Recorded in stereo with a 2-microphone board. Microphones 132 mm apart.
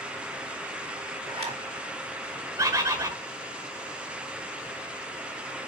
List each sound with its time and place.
1.3 s a zipper: 50° right (ahead or behind), 2.5 m
2.6 s a bird: 25° right (ahead or behind), 1.4 m